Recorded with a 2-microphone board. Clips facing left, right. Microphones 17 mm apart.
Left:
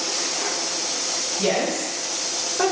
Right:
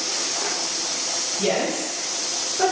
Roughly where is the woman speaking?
Centre.